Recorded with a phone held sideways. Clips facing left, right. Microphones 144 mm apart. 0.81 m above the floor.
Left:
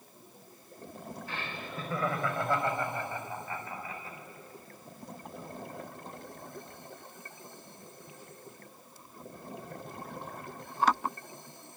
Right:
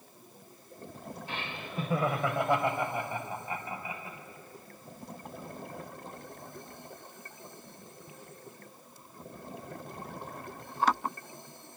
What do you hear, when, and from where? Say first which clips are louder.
1.3 s laughter: right 1 dB; 20° right (ahead or behind), 3 m; by 4.2 s 15° right (ahead or behind), 5.5 m